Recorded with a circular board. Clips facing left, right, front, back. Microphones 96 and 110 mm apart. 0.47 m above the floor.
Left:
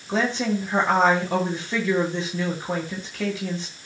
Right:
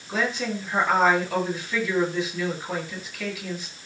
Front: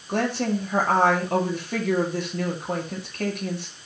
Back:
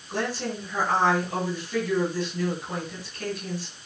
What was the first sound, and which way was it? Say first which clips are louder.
A woman speaking: left 4 dB, front 5 dB; 30° left.